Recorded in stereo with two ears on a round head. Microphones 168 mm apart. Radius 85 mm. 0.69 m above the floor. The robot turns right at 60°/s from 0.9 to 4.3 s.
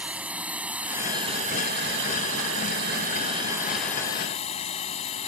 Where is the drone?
175° right; by 5.3 s 30° left.